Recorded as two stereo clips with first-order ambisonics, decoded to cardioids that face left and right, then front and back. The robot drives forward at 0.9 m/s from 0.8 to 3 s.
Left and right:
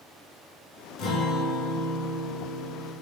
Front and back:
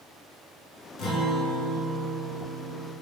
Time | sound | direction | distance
1.0 | a guitar | 45° left | 0.8 m